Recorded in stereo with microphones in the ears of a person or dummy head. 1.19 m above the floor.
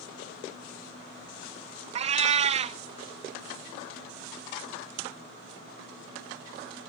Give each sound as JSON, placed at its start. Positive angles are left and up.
{"t": 1.9, "sound": "a cat meowing", "side_deg": -35, "distance_m": 0.7}